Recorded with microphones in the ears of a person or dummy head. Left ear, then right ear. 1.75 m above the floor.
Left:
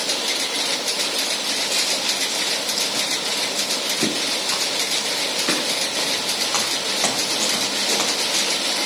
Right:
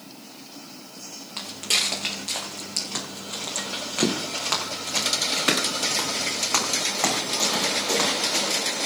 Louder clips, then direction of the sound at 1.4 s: Left 3 dB; 45° right (ahead or behind).